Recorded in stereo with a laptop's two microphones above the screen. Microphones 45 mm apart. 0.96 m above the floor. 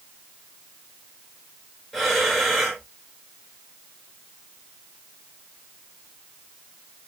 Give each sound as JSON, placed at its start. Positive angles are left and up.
{"t": 1.9, "sound": "breathing", "side_deg": 0, "distance_m": 1.5}